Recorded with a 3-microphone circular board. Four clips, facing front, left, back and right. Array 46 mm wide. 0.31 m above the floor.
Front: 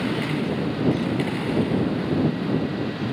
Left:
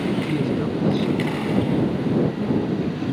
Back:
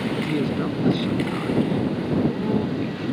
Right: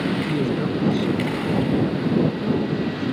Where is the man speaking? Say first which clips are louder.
Even, back 1 dB; 175° right.